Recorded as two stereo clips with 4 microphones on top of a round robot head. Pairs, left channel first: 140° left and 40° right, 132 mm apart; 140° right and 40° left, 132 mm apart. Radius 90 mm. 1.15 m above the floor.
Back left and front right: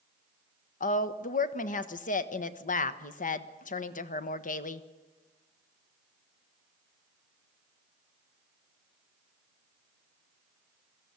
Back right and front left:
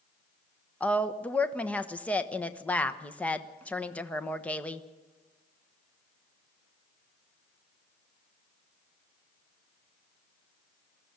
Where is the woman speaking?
140° left, 1.3 m.